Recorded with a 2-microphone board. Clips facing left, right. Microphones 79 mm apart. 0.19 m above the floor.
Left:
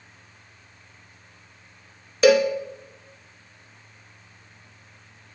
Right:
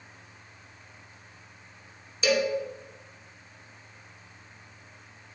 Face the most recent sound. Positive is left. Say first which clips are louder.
# left 9 dB
turn(degrees=65)  # may be behind; listen again after turning